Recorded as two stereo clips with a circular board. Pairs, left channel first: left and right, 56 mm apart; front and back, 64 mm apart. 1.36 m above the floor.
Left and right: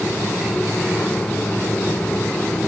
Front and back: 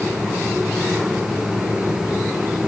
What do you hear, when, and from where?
Only background noise.